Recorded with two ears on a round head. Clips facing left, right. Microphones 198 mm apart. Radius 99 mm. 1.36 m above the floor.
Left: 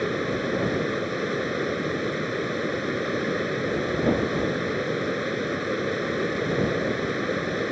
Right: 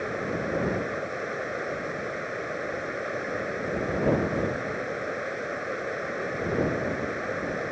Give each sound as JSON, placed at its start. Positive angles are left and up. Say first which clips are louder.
{"t": 0.0, "sound": "running water", "louder": "left 4 dB", "side_deg": 50}